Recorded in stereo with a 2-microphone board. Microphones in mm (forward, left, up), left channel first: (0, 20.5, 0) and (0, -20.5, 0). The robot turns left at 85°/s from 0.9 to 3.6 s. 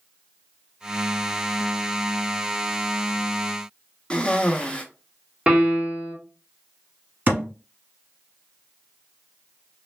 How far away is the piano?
About 1.4 m.